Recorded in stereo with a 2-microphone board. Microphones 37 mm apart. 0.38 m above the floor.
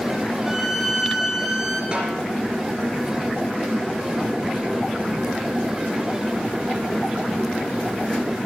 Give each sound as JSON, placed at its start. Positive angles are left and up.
{"t": 0.5, "sound": "a violin", "side_deg": -5, "distance_m": 1.8}
{"t": 1.9, "sound": "a snare drum", "side_deg": -25, "distance_m": 3.5}